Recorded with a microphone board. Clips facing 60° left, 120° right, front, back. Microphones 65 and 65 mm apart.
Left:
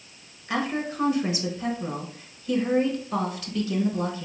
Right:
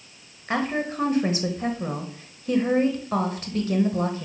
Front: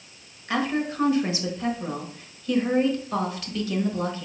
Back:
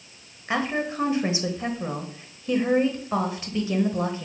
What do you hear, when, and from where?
0.5 s a woman speaking: 130° right, 1.1 m